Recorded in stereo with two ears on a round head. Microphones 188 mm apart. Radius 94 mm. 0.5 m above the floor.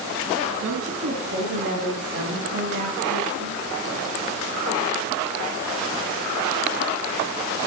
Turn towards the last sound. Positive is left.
turn(degrees=-55)  # may be behind; listen again after turning